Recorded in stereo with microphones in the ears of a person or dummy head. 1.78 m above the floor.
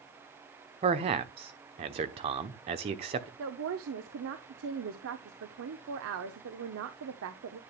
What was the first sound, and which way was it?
A man speaking, 30° right (ahead or behind).